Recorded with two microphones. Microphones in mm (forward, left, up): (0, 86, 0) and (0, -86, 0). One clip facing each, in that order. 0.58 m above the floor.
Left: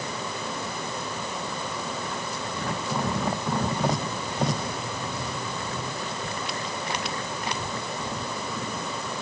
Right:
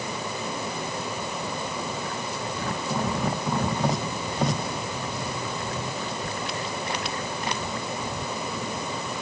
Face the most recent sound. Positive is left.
No sound to turn to.